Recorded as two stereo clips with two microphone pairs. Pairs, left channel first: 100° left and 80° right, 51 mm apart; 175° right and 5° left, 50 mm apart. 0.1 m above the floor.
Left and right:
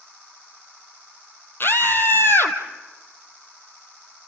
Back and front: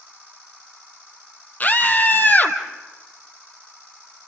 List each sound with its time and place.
1.6 s a scream: 135° left, 2.5 m